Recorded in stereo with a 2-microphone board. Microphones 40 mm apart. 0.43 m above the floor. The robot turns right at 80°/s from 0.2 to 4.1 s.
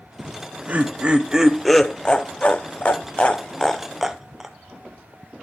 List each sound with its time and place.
0.2 s laughter: 35° right (ahead or behind), 1.0 m; by 4.5 s 10° right (ahead or behind), 1.0 m